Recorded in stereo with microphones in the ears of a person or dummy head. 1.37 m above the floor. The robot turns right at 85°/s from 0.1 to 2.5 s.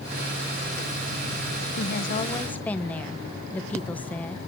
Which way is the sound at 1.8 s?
105° left.